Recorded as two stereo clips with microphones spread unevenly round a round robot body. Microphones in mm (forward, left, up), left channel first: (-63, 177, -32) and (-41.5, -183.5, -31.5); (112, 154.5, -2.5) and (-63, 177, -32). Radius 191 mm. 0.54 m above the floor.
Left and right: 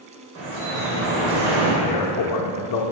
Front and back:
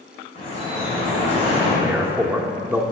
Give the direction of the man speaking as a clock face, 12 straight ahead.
8 o'clock.